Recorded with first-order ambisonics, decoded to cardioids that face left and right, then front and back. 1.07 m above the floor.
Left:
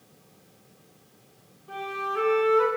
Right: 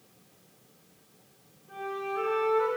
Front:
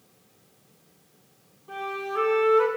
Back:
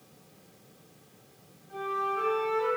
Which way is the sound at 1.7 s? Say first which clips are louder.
Left 4 dB, even; 45° left.